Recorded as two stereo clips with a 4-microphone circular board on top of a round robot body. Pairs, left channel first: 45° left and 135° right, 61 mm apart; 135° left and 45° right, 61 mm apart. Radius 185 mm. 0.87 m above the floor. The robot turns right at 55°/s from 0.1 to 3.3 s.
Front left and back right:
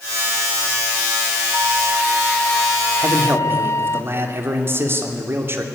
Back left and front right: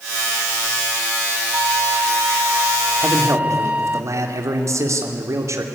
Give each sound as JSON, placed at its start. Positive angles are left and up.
{"t": 1.5, "sound": "a flute", "azimuth_deg": -80, "distance_m": 0.9}
{"t": 3.0, "sound": "a man speaking", "azimuth_deg": -100, "distance_m": 2.5}